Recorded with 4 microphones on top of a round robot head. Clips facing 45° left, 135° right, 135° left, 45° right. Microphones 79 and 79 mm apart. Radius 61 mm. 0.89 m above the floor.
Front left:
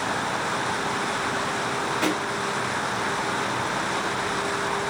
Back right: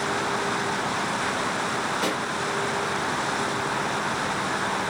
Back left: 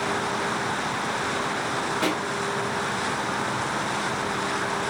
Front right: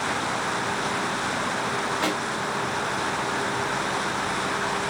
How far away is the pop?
About 1.4 m.